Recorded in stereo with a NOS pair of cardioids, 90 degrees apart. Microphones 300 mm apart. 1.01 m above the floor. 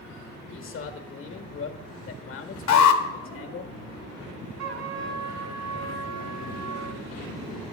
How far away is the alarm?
About 1.1 m.